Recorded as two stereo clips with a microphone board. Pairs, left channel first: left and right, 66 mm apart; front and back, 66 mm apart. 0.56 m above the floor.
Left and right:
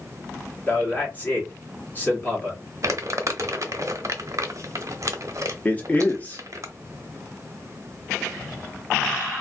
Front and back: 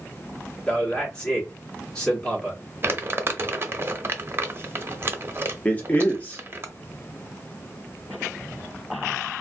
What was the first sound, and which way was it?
A man speaking, 65° left.